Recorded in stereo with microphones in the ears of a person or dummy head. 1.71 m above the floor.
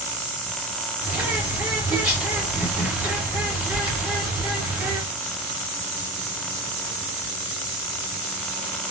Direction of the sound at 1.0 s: 10° right (ahead or behind).